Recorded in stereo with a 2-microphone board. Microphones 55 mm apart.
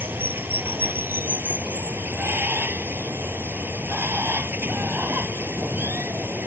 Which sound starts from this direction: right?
Running water, at 0.0 s.